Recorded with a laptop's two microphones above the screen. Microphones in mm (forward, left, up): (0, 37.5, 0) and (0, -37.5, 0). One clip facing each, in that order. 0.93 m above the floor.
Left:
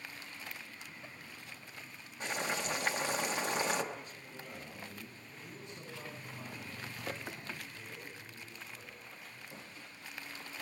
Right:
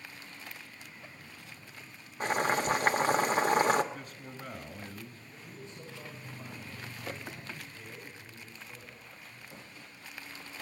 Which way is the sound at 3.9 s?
60° right (ahead or behind).